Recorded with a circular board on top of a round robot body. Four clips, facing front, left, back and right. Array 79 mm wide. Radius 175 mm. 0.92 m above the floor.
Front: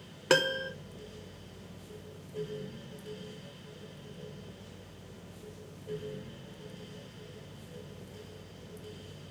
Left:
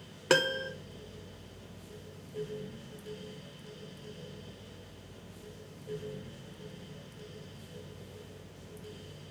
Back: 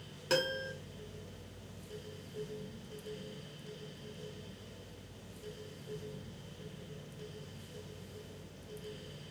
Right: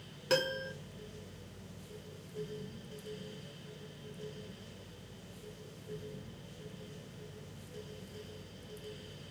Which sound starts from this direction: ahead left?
A piano, at 0.3 s.